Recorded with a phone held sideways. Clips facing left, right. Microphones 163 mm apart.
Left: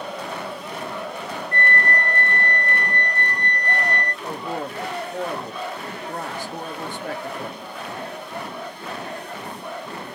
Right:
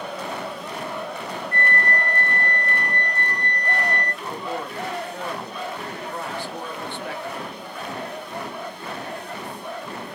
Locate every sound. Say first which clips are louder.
1.5 s a flute: left 2 dB; 55° left (ahead or behind), 1.6 m
4.2 s a man speaking: left 1 dB; 40° left (ahead or behind), 1.1 m